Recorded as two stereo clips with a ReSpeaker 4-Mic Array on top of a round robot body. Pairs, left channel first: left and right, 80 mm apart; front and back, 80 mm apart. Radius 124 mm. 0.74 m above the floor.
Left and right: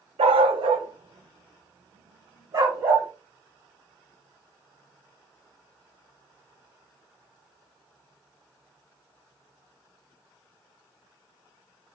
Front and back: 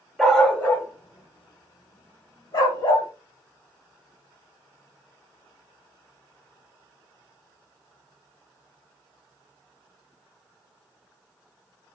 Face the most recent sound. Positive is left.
turn(degrees=-35)